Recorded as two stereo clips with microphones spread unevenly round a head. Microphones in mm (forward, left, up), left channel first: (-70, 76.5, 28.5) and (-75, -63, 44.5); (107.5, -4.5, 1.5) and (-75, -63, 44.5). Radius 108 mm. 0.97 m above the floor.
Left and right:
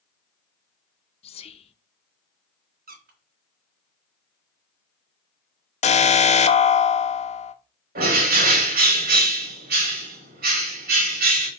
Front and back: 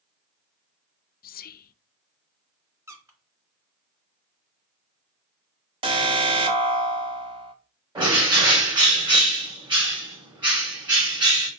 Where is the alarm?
130° left, 0.9 m.